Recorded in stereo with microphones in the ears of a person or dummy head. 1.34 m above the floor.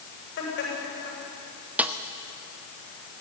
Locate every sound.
0.4 s laughter: 60° left (ahead or behind), 8 m
1.8 s a snare drum: 5° right (ahead or behind), 1.0 m